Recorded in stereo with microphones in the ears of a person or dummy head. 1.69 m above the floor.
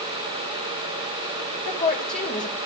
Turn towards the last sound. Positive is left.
turn(degrees=35)  # may be behind; listen again after turning